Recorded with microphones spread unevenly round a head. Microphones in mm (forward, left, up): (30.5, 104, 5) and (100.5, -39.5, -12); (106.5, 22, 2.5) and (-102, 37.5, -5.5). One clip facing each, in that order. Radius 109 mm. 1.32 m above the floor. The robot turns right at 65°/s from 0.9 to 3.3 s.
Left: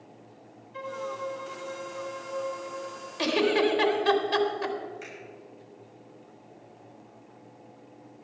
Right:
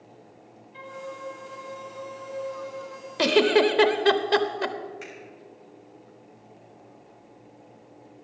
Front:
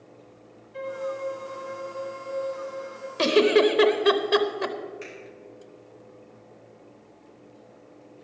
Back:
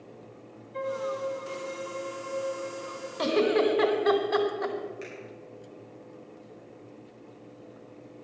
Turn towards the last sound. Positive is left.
turn(degrees=-115)